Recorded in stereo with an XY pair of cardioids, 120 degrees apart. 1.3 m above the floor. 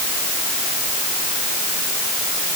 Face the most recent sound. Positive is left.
No sound to turn to.